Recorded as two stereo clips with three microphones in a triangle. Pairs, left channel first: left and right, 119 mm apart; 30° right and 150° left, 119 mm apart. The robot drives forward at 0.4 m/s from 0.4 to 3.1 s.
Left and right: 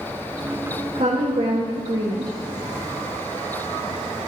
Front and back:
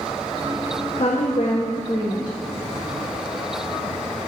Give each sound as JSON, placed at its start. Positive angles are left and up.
{"t": 0.9, "sound": "a woman speaking", "azimuth_deg": -65, "distance_m": 1.4}